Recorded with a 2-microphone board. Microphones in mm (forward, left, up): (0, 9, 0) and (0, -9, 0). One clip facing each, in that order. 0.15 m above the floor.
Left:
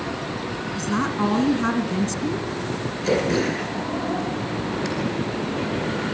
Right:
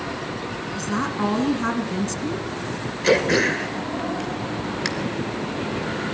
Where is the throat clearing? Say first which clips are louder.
Right 4 dB; 50° right (ahead or behind), 2.5 m.